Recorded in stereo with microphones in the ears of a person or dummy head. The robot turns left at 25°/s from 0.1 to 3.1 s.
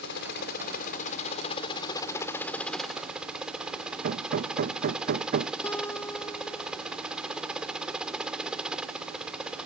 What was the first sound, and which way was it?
A helicopter, 70° left.